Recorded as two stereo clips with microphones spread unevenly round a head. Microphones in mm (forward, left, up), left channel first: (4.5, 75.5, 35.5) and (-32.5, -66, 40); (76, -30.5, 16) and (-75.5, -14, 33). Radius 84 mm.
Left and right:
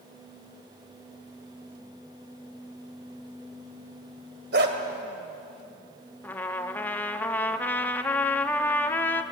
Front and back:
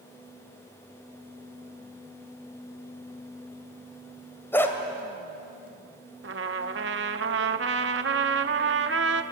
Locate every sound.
4.5 s a dog barking: 85° right, 2.0 m
6.2 s a trumpet: 155° left, 0.9 m